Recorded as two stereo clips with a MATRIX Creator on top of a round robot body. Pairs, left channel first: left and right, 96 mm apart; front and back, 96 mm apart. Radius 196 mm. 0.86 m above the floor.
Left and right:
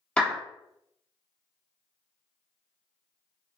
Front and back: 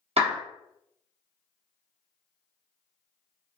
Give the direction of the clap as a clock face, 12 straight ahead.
6 o'clock.